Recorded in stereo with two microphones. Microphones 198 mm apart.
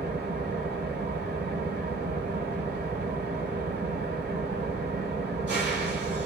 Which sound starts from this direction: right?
An engine running, at 0.0 s.